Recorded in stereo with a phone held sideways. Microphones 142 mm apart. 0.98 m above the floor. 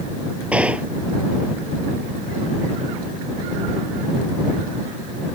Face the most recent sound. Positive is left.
turn(degrees=-10)  # may be behind; listen again after turning